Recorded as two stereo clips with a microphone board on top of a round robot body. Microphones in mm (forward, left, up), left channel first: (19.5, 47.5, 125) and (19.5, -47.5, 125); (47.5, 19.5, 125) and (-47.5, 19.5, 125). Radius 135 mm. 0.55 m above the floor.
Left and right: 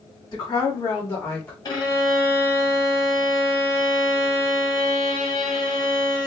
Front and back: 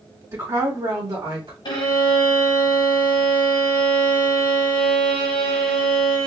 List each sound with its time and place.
0.3 s a woman speaking: 120° left, 2.5 m; by 1.6 s 155° left, 1.6 m
1.6 s a violin: 40° left, 0.7 m